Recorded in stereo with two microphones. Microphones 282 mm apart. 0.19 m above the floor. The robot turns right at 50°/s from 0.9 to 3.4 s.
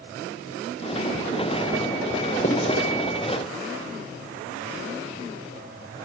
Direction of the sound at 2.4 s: 35° left (ahead or behind).